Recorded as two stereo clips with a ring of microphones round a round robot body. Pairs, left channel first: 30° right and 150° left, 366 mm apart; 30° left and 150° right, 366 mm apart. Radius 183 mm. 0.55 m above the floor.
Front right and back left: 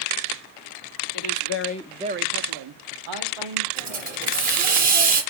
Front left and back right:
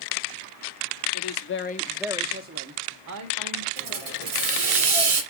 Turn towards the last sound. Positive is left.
turn(degrees=-160)